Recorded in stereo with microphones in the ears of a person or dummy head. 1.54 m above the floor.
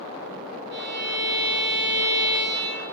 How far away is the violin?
About 2.5 m.